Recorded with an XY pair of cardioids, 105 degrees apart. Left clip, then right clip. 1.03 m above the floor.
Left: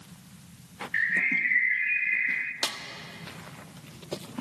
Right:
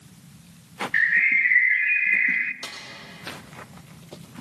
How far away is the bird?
About 0.6 m.